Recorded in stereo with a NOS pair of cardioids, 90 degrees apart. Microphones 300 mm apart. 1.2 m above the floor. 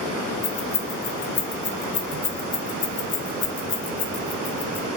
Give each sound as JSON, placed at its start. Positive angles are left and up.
{"t": 0.4, "sound": "keys jangling", "azimuth_deg": 55, "distance_m": 0.9}